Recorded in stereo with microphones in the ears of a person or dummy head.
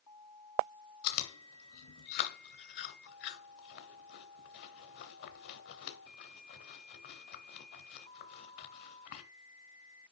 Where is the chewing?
55° left (ahead or behind), 2 m.